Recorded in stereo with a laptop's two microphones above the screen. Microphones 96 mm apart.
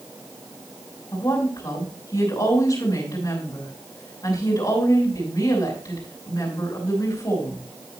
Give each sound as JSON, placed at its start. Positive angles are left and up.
{"t": 1.1, "sound": "a woman speaking", "side_deg": 45, "distance_m": 5.5}